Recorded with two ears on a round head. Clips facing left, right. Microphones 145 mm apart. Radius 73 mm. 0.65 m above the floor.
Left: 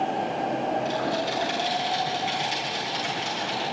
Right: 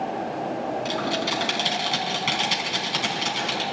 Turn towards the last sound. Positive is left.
turn(degrees=-80)